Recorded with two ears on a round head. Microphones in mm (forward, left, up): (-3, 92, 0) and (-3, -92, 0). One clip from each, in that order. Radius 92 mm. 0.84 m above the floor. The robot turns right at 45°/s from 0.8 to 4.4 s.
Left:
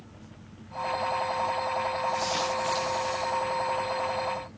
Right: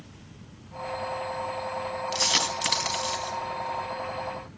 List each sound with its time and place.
2.1 s a dropped coin: 80° right, 3.5 m; by 3.4 s 45° right (ahead or behind), 3.5 m